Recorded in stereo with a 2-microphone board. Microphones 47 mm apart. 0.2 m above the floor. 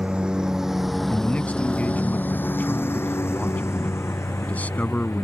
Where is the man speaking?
35° left (ahead or behind).